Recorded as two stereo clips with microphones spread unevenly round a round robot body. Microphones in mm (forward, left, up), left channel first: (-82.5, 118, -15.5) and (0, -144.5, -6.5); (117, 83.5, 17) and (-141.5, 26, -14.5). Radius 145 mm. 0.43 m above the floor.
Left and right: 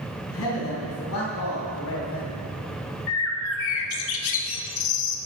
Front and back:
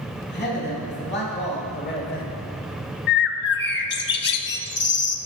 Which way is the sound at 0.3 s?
65° left.